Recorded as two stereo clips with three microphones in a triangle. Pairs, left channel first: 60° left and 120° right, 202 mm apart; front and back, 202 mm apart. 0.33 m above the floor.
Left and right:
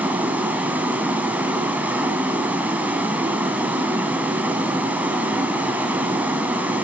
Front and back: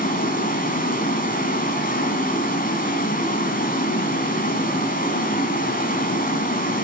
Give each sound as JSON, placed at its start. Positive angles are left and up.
{"t": 0.0, "sound": "running water", "azimuth_deg": -40, "distance_m": 2.5}